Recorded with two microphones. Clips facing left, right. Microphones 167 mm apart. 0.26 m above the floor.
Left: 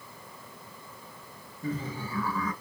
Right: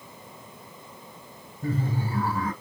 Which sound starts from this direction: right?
Laughter, at 1.6 s.